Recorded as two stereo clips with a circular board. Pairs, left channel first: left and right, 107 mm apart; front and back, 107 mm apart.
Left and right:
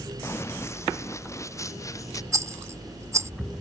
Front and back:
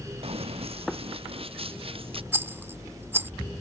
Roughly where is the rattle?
Behind right.